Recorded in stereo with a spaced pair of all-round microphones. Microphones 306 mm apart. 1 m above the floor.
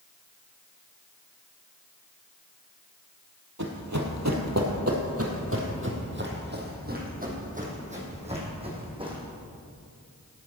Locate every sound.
3.6 s running footsteps: 60° right (ahead or behind), 2 m; by 9.2 s 15° right (ahead or behind), 4 m